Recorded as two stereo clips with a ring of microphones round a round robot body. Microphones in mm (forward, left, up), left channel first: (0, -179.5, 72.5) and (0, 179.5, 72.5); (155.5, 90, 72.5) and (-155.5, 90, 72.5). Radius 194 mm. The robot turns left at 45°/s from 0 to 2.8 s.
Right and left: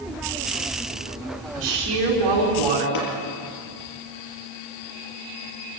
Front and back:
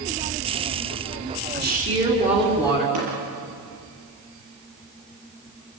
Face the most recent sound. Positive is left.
turn(degrees=-130)